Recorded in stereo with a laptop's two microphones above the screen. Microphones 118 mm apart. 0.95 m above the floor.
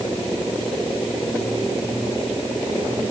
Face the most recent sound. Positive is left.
No sound to turn to.